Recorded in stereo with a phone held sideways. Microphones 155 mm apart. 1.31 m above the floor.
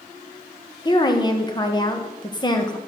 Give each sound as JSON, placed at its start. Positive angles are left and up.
{"t": 0.8, "sound": "a woman speaking", "side_deg": 30, "distance_m": 1.4}